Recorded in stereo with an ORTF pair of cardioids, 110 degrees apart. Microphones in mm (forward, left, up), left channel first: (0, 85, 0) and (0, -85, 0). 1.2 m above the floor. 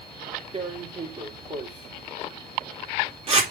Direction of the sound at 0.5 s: 35° right.